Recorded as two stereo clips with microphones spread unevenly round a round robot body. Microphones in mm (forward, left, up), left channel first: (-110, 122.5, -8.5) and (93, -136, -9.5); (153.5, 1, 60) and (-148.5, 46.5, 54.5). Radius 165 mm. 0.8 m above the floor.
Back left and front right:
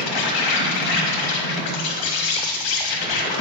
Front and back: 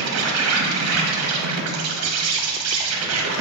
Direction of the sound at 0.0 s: 140° left.